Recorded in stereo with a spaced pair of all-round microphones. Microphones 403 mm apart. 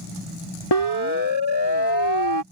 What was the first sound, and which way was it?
A siren, 75° left (ahead or behind).